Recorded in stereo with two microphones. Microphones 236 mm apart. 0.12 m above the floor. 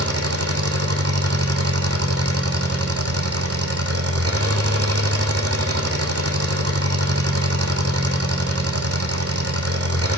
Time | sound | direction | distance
0.0 | an engine running | 80° right | 1.6 m